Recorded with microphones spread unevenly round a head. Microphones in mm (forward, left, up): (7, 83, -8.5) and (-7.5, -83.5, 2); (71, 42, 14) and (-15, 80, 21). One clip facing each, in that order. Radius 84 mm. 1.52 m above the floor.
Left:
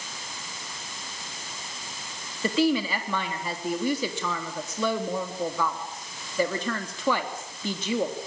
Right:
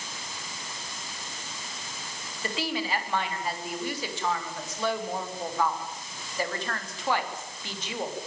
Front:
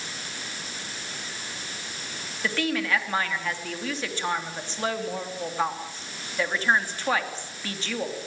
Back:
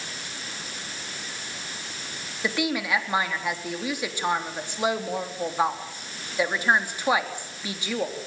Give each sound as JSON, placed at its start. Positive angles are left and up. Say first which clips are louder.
{"t": 2.4, "sound": "a woman speaking", "louder": "left 8 dB, even", "azimuth_deg": 80, "distance_m": 3.5}